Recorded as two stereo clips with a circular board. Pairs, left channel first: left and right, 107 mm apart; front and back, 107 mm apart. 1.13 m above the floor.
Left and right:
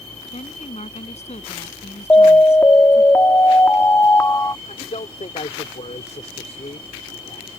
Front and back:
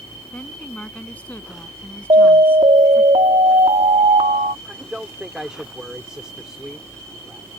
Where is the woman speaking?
80° left; by 3.1 s 75° left.